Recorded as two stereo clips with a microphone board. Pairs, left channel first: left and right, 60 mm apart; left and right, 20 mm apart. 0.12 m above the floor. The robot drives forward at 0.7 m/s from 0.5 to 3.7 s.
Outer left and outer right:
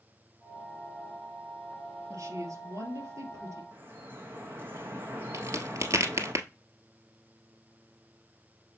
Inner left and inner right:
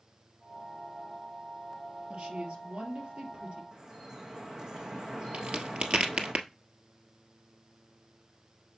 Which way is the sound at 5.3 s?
55° right (ahead or behind).